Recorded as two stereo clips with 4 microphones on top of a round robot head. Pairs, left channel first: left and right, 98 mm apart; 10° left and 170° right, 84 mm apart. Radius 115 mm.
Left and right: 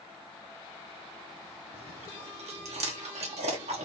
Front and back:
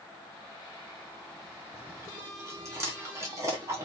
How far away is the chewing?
About 1.2 m.